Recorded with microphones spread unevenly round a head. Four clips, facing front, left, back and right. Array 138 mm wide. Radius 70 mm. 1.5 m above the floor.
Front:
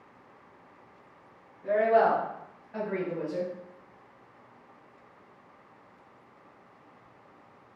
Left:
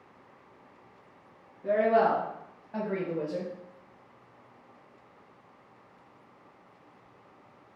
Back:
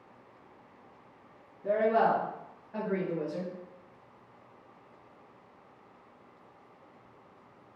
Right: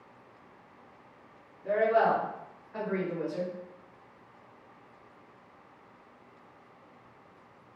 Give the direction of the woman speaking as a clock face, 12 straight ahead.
8 o'clock.